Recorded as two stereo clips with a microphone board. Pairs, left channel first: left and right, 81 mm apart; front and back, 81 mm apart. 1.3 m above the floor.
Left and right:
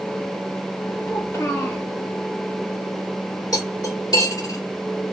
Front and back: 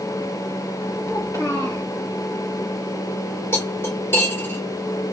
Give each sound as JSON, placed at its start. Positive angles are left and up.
{"t": 1.1, "sound": "a child speaking", "azimuth_deg": 45, "distance_m": 2.0}
{"t": 3.5, "sound": "cutlery clinking", "azimuth_deg": 60, "distance_m": 2.5}